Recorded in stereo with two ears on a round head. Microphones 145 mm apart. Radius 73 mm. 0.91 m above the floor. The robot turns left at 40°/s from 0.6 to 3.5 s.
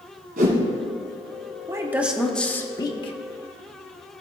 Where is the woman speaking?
160° right, 1.1 m; by 3.1 s 145° left, 1.1 m.